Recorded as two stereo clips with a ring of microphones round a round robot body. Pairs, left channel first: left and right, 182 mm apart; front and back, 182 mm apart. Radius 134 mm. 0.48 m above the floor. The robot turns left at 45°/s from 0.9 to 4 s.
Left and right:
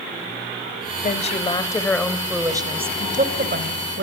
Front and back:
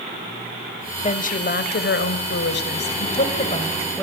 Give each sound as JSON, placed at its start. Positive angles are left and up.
{"t": 1.0, "sound": "a woman speaking", "azimuth_deg": 50, "distance_m": 2.5}